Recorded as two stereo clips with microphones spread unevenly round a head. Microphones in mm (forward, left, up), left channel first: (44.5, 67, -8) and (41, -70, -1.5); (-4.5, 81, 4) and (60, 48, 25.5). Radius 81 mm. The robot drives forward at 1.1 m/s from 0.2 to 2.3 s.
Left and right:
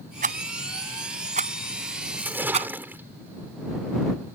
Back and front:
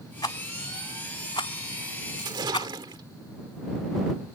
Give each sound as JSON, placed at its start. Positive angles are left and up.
{"t": 0.2, "sound": "a rattle", "azimuth_deg": -140}
{"t": 2.2, "sound": "a splash", "azimuth_deg": -15}